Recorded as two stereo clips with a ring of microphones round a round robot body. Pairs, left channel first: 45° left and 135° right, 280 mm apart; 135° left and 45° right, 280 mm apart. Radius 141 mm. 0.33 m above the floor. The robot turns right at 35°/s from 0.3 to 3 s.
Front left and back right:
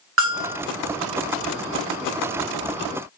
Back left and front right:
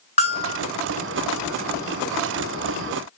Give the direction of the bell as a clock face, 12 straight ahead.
5 o'clock.